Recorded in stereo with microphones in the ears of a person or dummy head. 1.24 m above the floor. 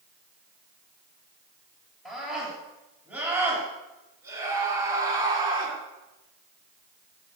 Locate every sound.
2.0 s a scream: centre (ahead or behind), 7 m; by 5.8 s 25° right (ahead or behind), 8.5 m